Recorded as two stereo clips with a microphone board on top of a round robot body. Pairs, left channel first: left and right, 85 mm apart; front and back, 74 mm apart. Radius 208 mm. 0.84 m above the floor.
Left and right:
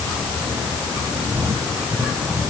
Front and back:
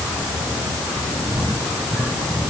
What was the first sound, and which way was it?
Only background noise.